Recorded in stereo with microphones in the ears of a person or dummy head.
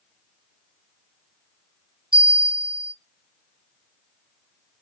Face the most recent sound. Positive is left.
turn(degrees=-25)  # may be behind; listen again after turning